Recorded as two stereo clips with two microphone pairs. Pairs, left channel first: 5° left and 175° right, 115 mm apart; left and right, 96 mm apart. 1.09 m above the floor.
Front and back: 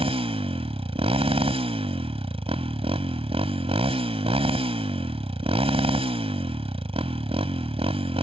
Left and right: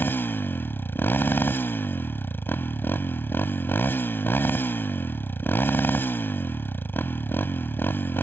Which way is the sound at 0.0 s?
155° left.